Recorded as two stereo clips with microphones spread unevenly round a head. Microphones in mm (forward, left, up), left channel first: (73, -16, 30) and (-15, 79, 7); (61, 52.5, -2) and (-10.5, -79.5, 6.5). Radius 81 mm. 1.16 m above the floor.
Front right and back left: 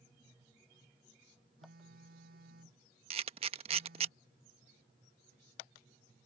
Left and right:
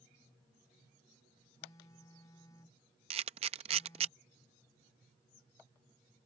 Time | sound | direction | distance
1.6 | a phone buzzing | 135° left | ?
3.1 | a camera shutter | 170° right | ?